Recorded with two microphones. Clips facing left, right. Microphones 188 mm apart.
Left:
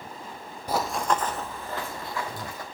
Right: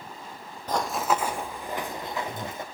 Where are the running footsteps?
10° left (ahead or behind), 0.9 m; by 2.6 s 20° right (ahead or behind), 3 m.